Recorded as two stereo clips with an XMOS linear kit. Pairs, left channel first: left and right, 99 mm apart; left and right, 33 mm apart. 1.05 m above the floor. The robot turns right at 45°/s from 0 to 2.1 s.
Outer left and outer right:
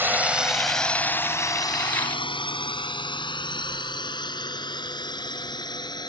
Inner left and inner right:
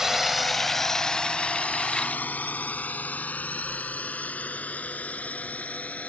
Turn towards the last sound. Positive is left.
turn(degrees=45)  # may be behind; listen again after turning